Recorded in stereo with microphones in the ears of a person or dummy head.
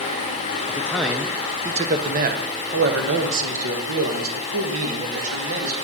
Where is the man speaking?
15° left (ahead or behind), 0.8 m; by 5.8 s 75° right (ahead or behind), 2.5 m.